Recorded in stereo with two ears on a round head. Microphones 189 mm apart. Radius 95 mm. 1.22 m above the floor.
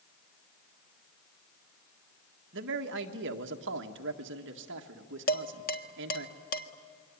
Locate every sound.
2.5 s a man speaking: 55° right (ahead or behind), 1.7 m
5.3 s dishes clattering: 40° left (ahead or behind), 1.5 m